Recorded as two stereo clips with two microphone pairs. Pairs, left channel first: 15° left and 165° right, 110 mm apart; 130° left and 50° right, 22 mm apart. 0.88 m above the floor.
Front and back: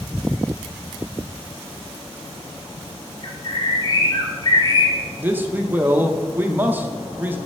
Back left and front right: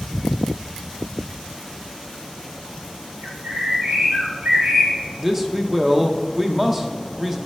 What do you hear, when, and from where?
3.2 s a bird: 35° right, 1.6 m
5.2 s a man speaking: 110° right, 0.5 m